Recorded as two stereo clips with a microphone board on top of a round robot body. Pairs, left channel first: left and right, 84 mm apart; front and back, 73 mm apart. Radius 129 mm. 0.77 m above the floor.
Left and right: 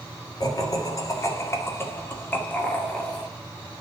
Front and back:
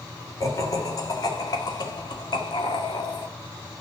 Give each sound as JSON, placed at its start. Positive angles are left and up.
{"t": 0.4, "sound": "laughter", "azimuth_deg": 45, "distance_m": 2.5}